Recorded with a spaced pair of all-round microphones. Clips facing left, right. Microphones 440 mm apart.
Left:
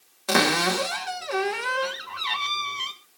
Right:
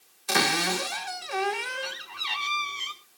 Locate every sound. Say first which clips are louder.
0.3 s a cupboard door: left 5 dB; 75° left (ahead or behind), 1.7 m